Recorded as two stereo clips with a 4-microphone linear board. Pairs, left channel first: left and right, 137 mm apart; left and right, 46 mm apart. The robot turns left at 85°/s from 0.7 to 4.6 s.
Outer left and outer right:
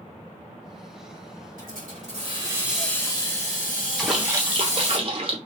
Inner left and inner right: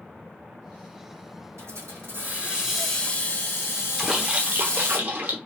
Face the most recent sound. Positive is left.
turn(degrees=-45)